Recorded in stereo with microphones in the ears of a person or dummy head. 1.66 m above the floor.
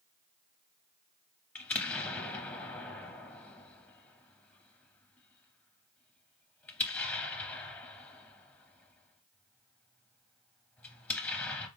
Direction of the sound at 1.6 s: 10° left (ahead or behind).